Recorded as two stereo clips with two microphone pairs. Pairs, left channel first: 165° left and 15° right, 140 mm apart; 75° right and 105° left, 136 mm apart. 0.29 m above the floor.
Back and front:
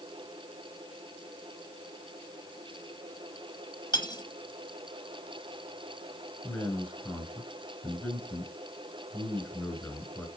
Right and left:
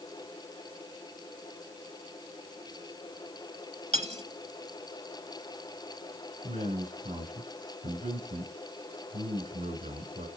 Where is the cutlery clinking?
120° left, 1.0 m.